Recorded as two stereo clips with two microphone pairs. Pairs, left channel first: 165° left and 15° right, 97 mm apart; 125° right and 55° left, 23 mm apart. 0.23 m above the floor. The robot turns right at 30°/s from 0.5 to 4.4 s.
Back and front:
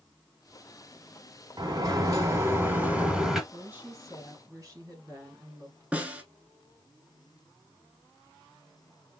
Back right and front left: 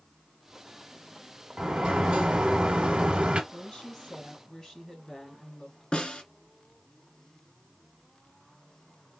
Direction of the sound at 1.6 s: 20° left.